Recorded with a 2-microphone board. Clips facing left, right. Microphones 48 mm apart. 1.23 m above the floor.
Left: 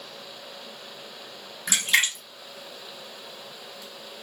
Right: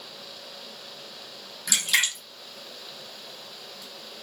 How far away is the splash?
About 0.8 m.